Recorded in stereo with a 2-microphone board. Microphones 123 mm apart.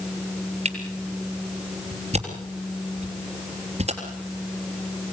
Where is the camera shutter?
55° right (ahead or behind), 3.5 m.